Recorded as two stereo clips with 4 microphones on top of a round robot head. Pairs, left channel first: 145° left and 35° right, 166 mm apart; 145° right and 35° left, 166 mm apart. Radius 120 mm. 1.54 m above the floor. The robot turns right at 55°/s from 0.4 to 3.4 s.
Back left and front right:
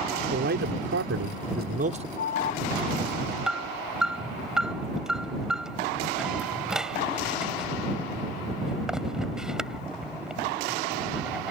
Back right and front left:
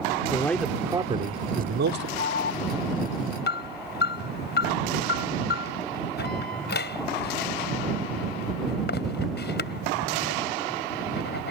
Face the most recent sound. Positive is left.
turn(degrees=-120)